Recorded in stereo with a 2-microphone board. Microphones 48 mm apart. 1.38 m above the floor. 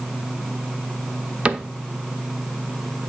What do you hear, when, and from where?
1.4 s a cupboard door: 25° right (ahead or behind), 0.6 m